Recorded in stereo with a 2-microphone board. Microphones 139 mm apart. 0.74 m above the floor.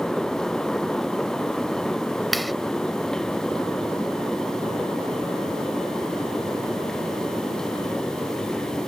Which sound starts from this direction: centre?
A clap, at 2.3 s.